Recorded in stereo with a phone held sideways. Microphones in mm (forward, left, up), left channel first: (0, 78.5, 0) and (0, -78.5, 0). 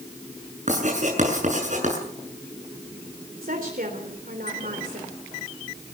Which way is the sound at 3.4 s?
65° right (ahead or behind).